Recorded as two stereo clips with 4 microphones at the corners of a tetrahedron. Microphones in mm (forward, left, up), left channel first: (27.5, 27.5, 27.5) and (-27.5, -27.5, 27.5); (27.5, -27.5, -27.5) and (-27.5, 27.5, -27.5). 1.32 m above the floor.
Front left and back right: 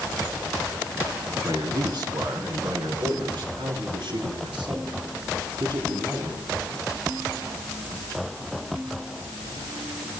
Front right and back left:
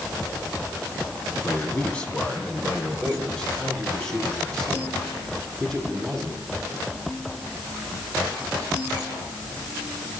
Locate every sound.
1.4 s a man speaking: 115° right, 3 m; by 6.4 s 130° right, 10 m